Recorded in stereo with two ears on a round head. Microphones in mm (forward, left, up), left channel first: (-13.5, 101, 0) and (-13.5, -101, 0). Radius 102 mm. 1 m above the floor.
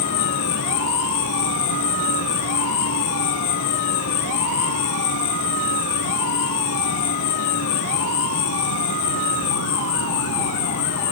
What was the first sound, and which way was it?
An insect, 65° left (ahead or behind).